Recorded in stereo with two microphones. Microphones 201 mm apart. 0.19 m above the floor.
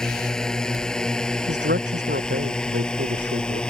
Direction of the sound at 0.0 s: 5° left (ahead or behind).